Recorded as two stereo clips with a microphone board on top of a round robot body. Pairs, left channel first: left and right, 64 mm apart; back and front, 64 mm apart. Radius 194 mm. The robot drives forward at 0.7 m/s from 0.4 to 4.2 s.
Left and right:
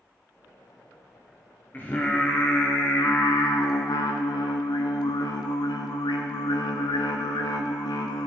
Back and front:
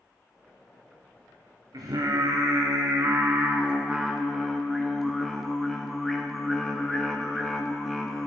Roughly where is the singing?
Ahead left.